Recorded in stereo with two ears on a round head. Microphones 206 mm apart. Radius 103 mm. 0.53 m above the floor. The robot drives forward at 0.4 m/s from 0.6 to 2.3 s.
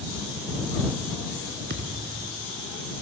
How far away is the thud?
About 2.5 m.